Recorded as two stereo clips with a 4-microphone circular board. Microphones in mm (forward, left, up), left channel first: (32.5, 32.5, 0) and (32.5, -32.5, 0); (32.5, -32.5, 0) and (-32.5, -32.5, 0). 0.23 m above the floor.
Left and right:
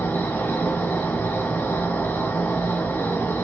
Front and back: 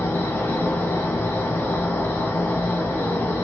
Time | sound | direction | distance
0.0 | an insect | 45° left | 1.3 m